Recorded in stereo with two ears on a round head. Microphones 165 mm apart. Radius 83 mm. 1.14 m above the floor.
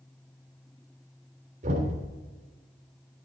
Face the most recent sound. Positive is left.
turn(degrees=-40)  # may be behind; listen again after turning